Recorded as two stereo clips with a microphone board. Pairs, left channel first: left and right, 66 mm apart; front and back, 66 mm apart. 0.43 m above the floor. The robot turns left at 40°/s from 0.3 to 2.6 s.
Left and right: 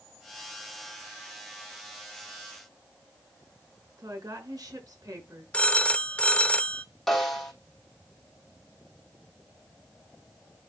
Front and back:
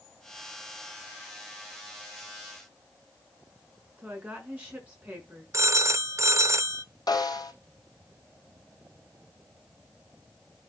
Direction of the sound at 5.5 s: 155° left.